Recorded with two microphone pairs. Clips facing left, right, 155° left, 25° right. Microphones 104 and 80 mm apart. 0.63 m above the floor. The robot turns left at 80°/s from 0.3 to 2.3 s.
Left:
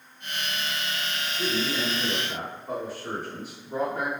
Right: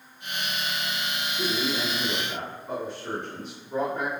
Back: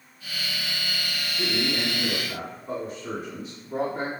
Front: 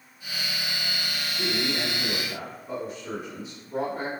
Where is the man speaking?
115° right, 1.6 m; by 4.1 s 170° left, 1.6 m.